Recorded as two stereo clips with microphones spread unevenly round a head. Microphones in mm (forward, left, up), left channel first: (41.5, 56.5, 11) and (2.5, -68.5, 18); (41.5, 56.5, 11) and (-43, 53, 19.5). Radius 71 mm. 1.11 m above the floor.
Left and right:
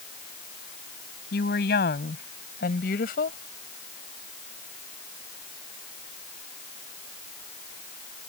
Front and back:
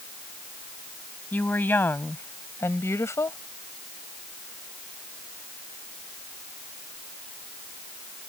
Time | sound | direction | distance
1.3 | a woman speaking | 70° left | ?